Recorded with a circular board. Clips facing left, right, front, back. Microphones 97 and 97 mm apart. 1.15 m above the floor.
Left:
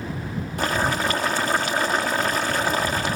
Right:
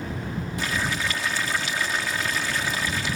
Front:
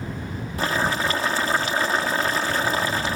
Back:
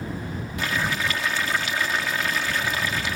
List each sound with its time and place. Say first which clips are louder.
0.6 s boiling: left 6 dB, front 4 dB; 55° left